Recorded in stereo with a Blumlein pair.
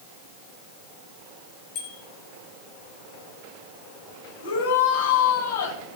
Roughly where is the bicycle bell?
Ahead left.